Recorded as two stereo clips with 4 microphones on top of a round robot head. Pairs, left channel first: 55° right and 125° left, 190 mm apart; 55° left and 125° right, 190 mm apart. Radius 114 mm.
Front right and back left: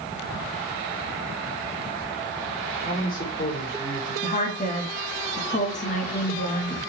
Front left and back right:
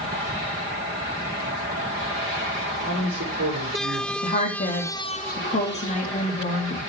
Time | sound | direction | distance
2.8 | a man speaking | 100° right | 4 m
4.2 | a woman speaking | straight ahead | 2 m